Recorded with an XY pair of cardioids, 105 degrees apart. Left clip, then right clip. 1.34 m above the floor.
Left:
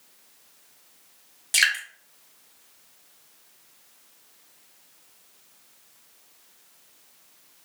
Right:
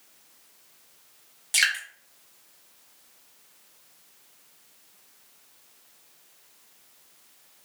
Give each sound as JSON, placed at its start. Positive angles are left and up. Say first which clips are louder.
{"t": 1.5, "sound": "dripping", "louder": "left 2 dB", "azimuth_deg": 10, "distance_m": 1.2}